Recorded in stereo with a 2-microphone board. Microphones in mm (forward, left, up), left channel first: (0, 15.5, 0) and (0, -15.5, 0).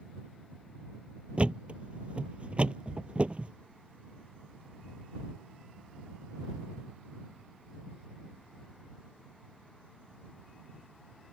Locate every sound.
1.4 s a thud: 35° right (ahead or behind)